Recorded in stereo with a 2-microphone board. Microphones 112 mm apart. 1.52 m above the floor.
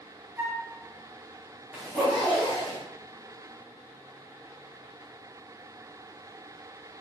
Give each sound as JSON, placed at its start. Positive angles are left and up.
{"t": 0.4, "sound": "a flute", "side_deg": -15, "distance_m": 0.6}
{"t": 1.7, "sound": "a zipper", "side_deg": 0, "distance_m": 1.9}